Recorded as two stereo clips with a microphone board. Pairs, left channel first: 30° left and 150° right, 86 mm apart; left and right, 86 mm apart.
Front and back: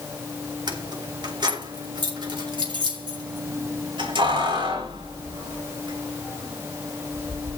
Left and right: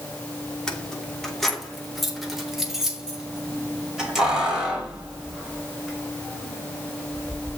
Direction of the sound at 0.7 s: 175° left.